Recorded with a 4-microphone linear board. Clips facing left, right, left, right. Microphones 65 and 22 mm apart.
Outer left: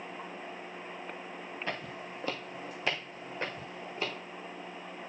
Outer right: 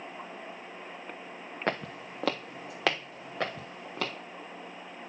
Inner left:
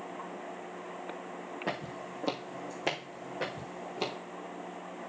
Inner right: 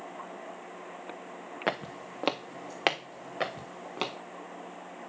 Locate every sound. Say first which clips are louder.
1.7 s footsteps: outer right 8 dB, inner right 5 dB; 55° right (ahead or behind), 1.2 m; by 4.1 s 70° right (ahead or behind), 3 m